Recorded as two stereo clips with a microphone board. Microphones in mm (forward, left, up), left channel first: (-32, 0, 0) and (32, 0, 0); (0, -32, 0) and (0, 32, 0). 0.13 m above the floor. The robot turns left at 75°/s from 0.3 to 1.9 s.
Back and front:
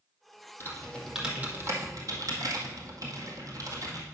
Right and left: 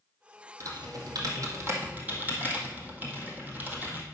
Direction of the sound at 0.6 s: 125° left.